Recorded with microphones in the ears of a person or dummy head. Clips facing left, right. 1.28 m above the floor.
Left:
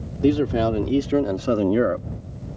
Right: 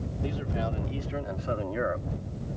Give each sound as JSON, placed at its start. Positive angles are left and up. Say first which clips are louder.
{"t": 0.2, "sound": "a man speaking", "louder": "left 15 dB", "side_deg": 65}